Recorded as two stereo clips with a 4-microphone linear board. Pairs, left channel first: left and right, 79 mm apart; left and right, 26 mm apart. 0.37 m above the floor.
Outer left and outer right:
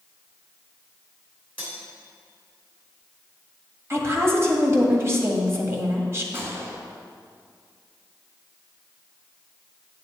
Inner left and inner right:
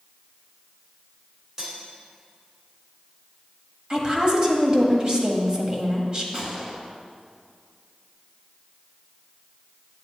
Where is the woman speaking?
35° right (ahead or behind), 1.7 m.